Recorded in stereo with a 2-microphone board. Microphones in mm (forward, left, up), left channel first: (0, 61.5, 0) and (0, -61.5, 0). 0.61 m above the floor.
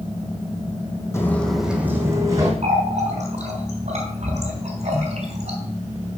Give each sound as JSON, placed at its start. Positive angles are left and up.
{"t": 1.1, "sound": "footsteps", "side_deg": 20, "distance_m": 1.1}
{"t": 2.6, "sound": "a running tap", "side_deg": -75, "distance_m": 3.0}